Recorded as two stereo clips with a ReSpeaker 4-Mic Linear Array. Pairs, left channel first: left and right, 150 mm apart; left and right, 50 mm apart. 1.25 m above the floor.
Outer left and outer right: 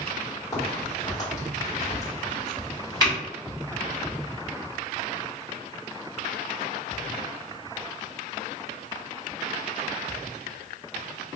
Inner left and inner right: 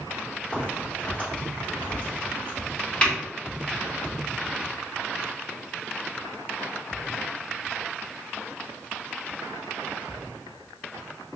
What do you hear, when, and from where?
0.5 s a crack: 25° left (ahead or behind), 1.4 m